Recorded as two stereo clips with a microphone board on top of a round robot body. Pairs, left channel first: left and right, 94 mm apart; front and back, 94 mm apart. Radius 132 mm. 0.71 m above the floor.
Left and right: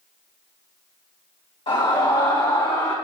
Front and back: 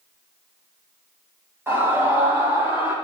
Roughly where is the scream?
Behind left.